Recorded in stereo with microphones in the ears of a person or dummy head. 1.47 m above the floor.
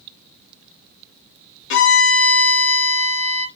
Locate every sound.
1.7 s a violin: 70° left (ahead or behind), 1.0 m